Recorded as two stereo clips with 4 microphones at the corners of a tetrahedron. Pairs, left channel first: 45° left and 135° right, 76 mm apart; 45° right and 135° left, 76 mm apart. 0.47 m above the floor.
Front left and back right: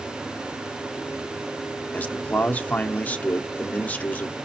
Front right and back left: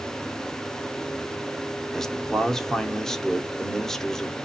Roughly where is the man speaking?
Ahead left.